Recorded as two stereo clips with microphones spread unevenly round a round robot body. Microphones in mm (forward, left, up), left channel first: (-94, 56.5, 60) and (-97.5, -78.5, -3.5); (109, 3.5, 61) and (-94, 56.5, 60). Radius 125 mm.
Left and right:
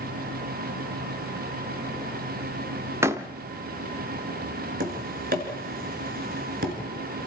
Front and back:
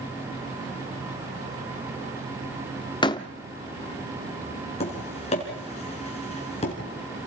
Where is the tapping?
80° right, 3 m.